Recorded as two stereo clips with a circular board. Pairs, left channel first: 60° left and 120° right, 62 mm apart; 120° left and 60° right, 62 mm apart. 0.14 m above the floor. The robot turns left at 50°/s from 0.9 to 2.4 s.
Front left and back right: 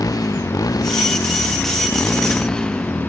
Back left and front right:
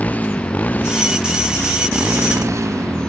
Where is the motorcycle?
55° left; by 3.1 s 20° right.